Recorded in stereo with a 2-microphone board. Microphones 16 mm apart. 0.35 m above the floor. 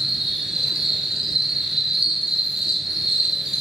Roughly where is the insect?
Right.